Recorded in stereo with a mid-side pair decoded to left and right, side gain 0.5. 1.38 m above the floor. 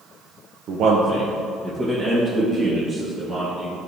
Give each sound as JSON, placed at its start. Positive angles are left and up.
{"t": 0.7, "sound": "a man speaking", "azimuth_deg": -70, "distance_m": 0.8}